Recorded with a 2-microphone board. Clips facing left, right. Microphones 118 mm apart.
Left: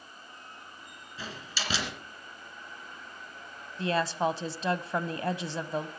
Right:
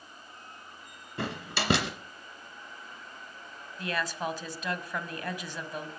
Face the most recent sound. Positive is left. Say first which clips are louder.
# left 5 dB
turn(degrees=30)  # may be behind; listen again after turning